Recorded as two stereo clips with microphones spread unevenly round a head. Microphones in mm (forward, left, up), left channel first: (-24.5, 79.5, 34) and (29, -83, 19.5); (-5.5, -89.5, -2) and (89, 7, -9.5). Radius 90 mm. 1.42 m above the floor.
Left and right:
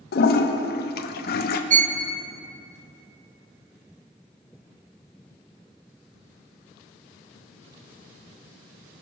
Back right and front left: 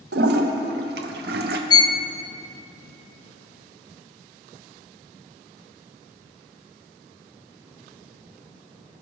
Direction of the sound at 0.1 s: 70° left.